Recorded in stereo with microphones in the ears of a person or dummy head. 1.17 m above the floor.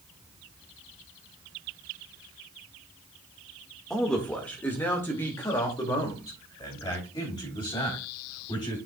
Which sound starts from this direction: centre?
A man speaking, at 3.9 s.